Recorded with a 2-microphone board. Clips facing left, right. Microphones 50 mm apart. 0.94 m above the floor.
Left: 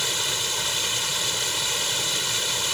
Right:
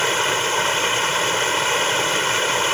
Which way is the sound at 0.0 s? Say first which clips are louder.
Right 9 dB; 45° right (ahead or behind).